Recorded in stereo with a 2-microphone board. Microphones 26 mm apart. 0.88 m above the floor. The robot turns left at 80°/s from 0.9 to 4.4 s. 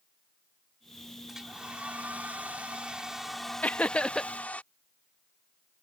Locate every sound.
1.3 s a hair dryer: 15° right; by 4.6 s 95° left
3.6 s laughter: 75° left; by 4.3 s 20° left